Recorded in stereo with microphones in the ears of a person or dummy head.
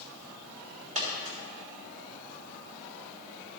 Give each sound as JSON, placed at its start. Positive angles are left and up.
{"t": 0.9, "sound": "a dropped coin", "side_deg": -35, "distance_m": 1.7}